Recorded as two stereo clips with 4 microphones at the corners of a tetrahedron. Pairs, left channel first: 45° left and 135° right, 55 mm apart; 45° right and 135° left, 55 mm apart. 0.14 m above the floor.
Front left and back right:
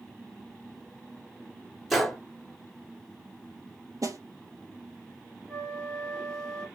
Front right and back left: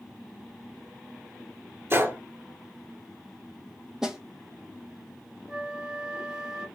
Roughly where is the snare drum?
Behind right.